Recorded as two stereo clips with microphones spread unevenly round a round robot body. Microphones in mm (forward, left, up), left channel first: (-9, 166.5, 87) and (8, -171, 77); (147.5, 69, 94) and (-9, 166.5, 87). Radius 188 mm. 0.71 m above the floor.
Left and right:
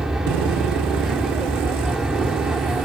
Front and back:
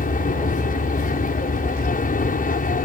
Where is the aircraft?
Straight ahead.